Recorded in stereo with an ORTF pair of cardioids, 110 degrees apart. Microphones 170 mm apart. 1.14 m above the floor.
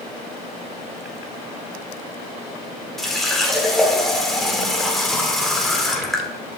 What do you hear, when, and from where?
3.0 s a running tap: straight ahead, 1.9 m